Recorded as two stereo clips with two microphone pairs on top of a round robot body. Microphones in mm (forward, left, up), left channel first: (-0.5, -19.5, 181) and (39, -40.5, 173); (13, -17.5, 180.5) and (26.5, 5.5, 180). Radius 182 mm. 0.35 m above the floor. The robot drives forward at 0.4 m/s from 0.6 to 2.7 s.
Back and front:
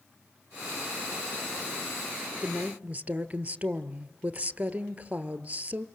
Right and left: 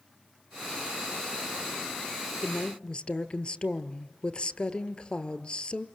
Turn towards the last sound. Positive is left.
turn(degrees=-75)